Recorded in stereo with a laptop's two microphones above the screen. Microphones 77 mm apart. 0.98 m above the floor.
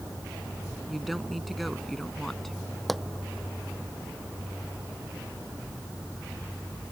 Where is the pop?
Centre (ahead or behind).